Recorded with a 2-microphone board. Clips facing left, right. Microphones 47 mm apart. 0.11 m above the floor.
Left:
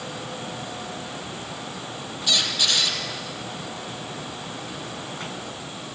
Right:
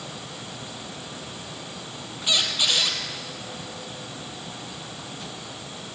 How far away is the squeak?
About 2.5 m.